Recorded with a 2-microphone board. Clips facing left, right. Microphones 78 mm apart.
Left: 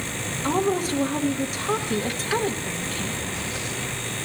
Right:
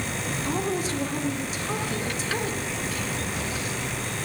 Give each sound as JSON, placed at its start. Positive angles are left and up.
{"t": 0.4, "sound": "a woman speaking", "side_deg": 50, "distance_m": 1.0}